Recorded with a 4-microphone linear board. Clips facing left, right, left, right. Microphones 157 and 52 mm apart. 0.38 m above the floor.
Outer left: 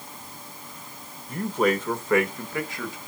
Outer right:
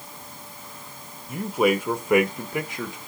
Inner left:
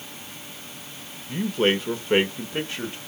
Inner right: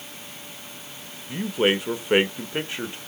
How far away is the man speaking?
About 0.9 m.